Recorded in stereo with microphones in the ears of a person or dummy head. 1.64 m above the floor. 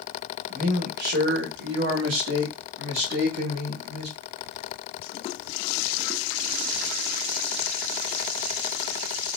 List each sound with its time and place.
0.5 s a man speaking: 45° right (ahead or behind), 1.2 m; by 4.2 s 55° right (ahead or behind), 2 m